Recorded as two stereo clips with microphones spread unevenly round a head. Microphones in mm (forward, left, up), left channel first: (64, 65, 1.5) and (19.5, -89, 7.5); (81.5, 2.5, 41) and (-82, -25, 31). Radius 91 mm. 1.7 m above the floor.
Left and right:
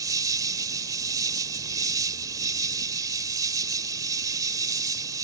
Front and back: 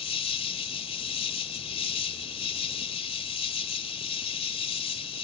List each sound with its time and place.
0.0 s an insect: 40° right